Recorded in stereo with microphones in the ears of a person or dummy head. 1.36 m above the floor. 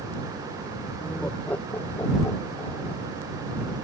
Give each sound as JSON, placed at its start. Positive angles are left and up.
{"t": 1.0, "sound": "laughter", "side_deg": 0}